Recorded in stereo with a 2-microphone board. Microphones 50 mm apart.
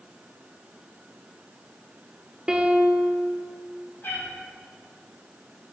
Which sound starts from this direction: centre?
A piano, at 2.5 s.